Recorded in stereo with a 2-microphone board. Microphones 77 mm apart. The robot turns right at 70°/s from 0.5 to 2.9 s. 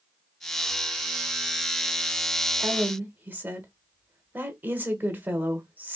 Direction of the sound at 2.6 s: 20° right (ahead or behind).